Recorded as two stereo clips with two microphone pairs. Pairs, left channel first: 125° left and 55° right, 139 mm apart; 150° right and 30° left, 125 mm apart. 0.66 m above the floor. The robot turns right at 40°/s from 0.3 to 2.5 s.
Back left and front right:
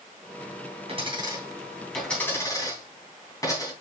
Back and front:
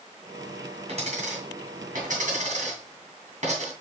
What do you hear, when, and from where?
0.9 s a dropped coin: 5° right, 3 m; by 3.7 s 60° left, 3 m